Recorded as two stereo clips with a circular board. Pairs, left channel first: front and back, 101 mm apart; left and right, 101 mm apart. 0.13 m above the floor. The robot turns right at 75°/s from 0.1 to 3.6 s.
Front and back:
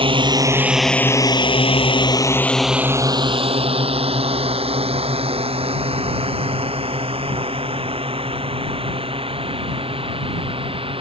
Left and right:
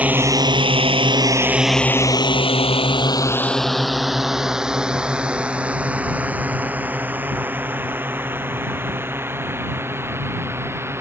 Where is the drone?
165° right; by 11.0 s 155° right.